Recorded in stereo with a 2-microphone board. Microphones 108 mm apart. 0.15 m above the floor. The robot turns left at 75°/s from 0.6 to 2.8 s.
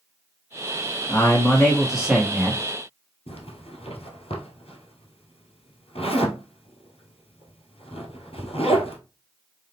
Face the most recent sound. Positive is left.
turn(degrees=70)  # may be behind; listen again after turning